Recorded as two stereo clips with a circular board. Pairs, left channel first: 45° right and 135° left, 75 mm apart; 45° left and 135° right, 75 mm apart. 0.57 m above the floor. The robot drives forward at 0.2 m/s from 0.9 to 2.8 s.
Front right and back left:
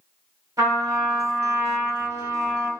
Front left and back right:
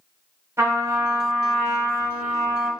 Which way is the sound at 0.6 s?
175° left.